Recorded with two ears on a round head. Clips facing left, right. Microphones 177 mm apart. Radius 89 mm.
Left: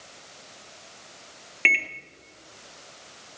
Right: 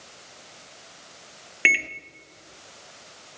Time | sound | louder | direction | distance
1.6 | a microwave | right 2 dB | 10° right (ahead or behind) | 0.5 m